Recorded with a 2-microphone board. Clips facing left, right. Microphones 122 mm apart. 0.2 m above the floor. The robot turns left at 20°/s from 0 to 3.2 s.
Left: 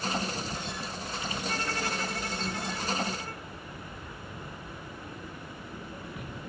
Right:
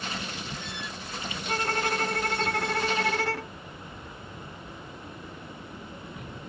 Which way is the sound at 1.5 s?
40° right.